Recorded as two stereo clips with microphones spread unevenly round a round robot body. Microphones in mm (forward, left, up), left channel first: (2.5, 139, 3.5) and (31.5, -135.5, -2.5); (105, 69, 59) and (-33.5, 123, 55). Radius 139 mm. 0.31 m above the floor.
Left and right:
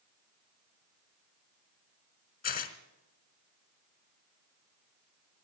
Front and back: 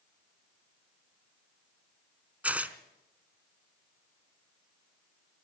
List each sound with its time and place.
2.4 s tearing paper: 90° left, 1.2 m